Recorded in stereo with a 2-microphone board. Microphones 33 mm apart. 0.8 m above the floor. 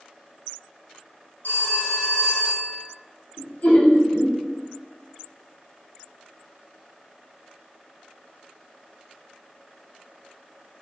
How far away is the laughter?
About 1.5 m.